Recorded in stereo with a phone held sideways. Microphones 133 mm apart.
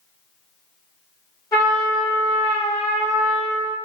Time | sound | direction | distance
1.5 | a trumpet | 25° left (ahead or behind) | 1.0 m